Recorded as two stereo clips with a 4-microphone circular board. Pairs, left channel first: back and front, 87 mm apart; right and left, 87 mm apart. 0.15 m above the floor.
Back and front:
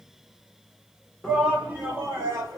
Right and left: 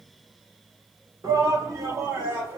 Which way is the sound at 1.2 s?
80° left.